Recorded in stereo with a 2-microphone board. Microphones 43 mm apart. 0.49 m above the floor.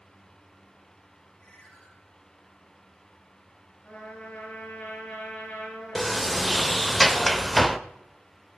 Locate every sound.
1.4 s a ringtone: 35° left (ahead or behind), 8 m
3.8 s a trumpet: 25° left (ahead or behind), 9 m
6.0 s a sliding door: 5° left (ahead or behind), 0.5 m